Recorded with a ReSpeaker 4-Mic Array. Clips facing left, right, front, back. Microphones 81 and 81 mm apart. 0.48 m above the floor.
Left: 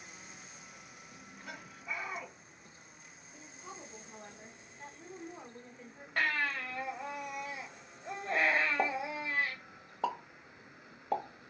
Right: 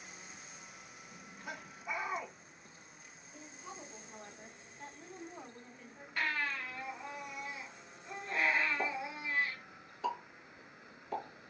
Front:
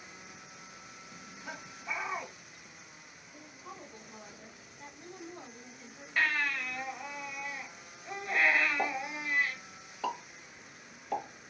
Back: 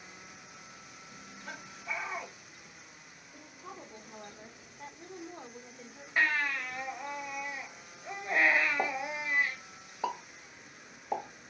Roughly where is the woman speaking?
Behind.